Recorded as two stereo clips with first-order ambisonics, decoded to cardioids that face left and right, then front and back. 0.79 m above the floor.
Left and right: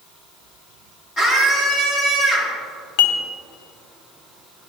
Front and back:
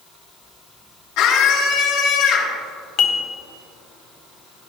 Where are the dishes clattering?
60° left, 1.2 m.